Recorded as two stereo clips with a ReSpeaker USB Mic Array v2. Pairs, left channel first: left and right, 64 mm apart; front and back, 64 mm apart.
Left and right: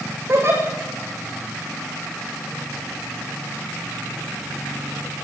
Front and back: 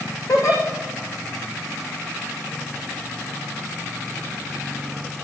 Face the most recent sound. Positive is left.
turn(degrees=-40)